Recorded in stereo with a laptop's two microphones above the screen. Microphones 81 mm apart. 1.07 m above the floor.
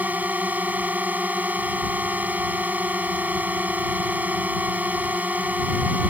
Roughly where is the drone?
Centre.